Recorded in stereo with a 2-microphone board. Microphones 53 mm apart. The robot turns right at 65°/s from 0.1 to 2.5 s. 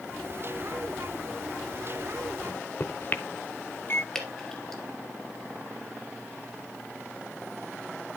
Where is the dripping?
5° left (ahead or behind), 2 m.